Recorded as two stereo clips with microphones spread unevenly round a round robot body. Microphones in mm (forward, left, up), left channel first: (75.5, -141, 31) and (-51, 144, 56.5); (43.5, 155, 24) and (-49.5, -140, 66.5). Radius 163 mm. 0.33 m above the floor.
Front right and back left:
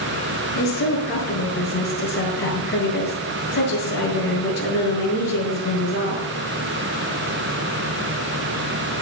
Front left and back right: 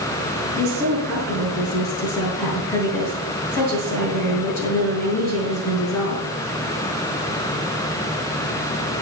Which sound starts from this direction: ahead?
A woman speaking, at 0.6 s.